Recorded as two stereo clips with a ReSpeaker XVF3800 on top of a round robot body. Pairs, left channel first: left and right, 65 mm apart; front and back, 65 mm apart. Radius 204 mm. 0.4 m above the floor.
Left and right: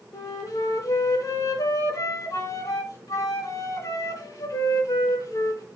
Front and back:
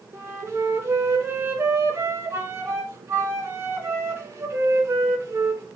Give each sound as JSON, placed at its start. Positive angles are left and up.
{"t": 0.1, "sound": "a flute", "azimuth_deg": 125, "distance_m": 0.5}